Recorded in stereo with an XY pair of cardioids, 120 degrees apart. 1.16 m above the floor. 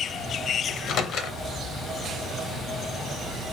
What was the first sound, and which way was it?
A microwave, 60° left.